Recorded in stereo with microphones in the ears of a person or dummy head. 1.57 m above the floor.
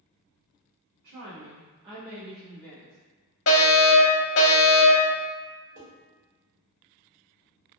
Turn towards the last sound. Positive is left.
turn(degrees=-30)  # may be behind; listen again after turning